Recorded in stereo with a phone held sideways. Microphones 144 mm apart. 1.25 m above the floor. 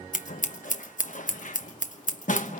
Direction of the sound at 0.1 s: 65° left (ahead or behind).